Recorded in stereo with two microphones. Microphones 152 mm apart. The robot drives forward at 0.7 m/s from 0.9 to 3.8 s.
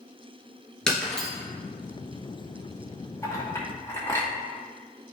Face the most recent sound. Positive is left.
turn(degrees=20)  # may be behind; listen again after turning